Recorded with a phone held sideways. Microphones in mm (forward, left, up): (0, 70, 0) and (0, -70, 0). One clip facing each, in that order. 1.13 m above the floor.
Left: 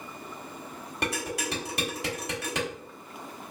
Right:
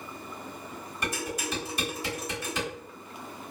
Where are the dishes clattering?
70° left (ahead or behind), 1.5 m.